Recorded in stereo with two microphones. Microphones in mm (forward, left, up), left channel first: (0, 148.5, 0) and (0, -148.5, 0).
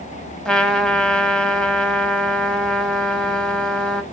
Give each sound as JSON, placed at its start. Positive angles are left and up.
{"t": 0.5, "sound": "a trumpet", "side_deg": 0, "distance_m": 0.6}